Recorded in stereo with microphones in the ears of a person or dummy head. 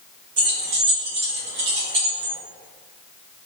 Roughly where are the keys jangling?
Right.